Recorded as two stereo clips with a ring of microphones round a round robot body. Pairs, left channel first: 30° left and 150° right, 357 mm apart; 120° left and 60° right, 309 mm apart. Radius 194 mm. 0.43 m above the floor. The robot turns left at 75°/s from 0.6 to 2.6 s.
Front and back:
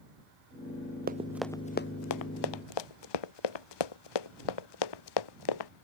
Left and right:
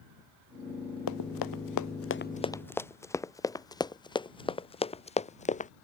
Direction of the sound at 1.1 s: 145° left.